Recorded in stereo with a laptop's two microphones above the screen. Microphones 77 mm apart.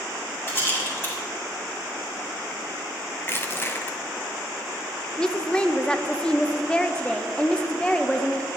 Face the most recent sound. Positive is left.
turn(degrees=10)  # may be behind; listen again after turning